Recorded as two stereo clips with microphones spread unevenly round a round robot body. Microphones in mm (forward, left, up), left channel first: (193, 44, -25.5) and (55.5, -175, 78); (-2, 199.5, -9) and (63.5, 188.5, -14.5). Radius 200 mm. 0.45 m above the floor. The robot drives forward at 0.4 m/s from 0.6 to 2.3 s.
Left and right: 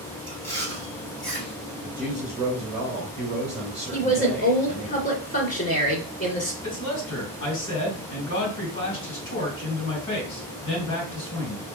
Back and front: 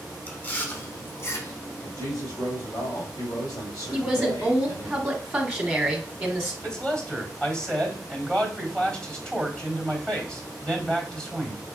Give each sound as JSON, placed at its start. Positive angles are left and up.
{"t": 0.3, "sound": "chewing", "azimuth_deg": 110, "distance_m": 1.1}
{"t": 1.8, "sound": "a woman speaking", "azimuth_deg": 155, "distance_m": 2.0}
{"t": 3.9, "sound": "a woman speaking", "azimuth_deg": 75, "distance_m": 1.8}
{"t": 6.6, "sound": "a man speaking", "azimuth_deg": 90, "distance_m": 2.5}